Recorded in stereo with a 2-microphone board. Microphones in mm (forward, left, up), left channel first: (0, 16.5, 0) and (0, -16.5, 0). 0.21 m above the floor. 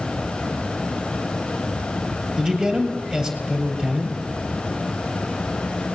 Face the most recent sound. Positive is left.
turn(degrees=-20)  # may be behind; listen again after turning